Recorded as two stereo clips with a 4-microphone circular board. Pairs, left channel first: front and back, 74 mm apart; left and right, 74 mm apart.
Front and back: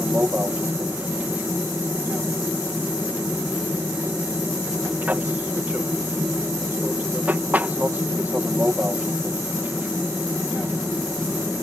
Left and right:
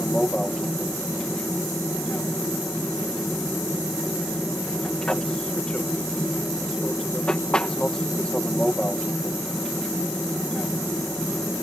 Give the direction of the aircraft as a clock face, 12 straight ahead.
7 o'clock.